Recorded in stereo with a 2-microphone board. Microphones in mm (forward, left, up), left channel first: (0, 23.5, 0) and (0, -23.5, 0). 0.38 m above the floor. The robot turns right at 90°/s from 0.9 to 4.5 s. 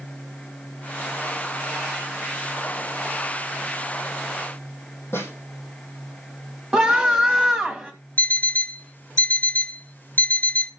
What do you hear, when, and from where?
5.1 s a snare drum: 55° left (ahead or behind), 5.5 m
6.7 s a scream: 15° right (ahead or behind), 3 m
8.2 s an alarm clock: 40° left (ahead or behind), 0.6 m